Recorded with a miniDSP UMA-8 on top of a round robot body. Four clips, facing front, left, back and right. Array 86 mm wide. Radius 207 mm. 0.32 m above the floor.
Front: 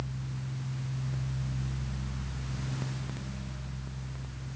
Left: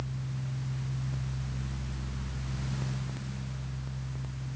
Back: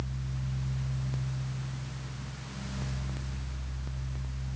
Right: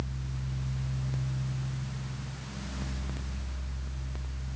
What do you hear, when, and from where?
Only background noise.